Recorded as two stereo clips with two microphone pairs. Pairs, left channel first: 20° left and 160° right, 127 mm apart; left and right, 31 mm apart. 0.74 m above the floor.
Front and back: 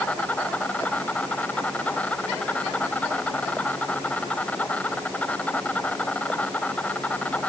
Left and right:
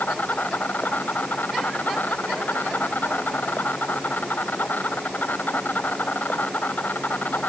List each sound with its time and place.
0.0 s an insect: 100° left